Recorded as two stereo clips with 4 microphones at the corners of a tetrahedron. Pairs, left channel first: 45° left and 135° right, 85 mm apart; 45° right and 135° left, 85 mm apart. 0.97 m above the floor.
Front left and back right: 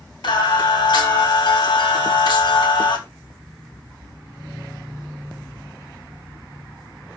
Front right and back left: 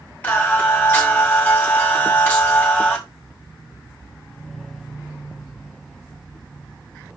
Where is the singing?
25° left, 1.7 m.